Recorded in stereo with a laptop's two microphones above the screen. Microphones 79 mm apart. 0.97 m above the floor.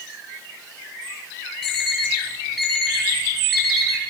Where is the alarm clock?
Centre (ahead or behind), 2.5 m.